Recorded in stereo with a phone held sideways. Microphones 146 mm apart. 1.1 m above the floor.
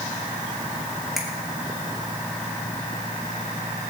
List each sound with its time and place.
1.2 s a finger snap: centre (ahead or behind), 2.5 m